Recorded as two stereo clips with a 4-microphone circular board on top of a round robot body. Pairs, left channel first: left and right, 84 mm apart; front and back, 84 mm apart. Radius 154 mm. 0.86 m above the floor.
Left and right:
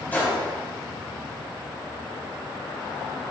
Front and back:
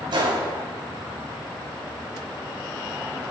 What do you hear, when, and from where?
0.1 s a gunshot: 160° left, 3 m